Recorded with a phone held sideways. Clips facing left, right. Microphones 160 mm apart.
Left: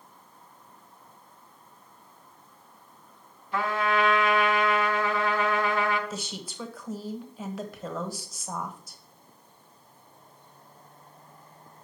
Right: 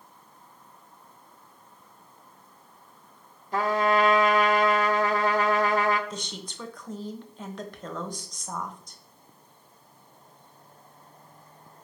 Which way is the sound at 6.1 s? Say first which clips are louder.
Left 1 dB; 5° left (ahead or behind).